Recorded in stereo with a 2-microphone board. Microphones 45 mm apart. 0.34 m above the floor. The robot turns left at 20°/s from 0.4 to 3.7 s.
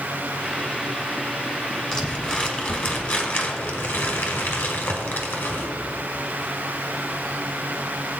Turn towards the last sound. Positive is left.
turn(degrees=125)